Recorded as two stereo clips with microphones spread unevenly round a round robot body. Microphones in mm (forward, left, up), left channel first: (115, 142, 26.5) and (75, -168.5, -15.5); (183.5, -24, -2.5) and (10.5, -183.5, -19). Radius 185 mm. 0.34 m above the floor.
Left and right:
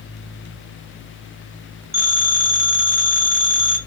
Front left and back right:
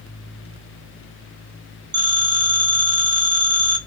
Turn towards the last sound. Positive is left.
turn(degrees=-135)